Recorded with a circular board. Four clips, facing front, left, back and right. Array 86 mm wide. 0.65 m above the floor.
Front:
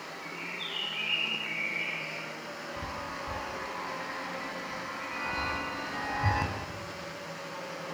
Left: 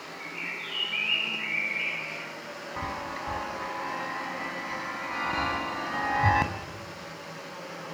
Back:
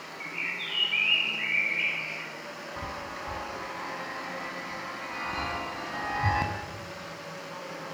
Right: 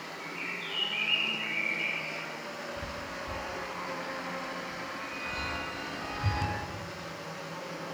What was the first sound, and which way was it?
A bird, 165° left.